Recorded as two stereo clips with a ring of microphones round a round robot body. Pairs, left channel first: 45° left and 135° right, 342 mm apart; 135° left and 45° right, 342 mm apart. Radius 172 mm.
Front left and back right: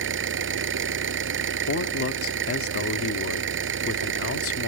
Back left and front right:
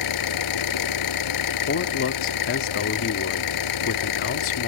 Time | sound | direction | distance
0.0 | an engine running | 170° left | ?
1.7 | a man speaking | 90° left | ?